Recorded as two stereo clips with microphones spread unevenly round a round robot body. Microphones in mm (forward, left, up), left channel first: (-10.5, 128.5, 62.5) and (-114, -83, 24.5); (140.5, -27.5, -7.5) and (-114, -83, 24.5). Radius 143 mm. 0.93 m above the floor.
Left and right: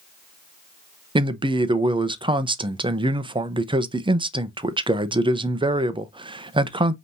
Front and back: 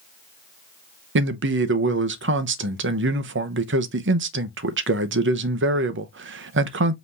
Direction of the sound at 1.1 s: 155° right.